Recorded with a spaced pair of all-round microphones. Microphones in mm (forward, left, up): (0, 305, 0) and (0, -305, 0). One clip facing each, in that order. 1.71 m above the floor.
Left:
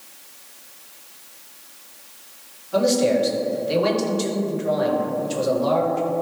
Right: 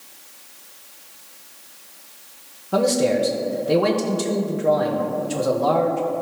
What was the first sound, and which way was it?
A man speaking, 70° right (ahead or behind).